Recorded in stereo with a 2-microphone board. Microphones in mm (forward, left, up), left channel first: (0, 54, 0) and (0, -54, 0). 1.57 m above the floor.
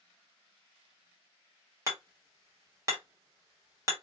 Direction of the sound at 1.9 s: 30° right (ahead or behind).